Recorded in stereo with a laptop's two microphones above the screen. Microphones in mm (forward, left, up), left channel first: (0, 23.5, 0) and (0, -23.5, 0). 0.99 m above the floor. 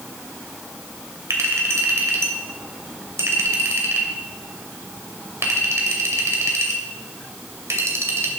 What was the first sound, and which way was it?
A clink, 85° right.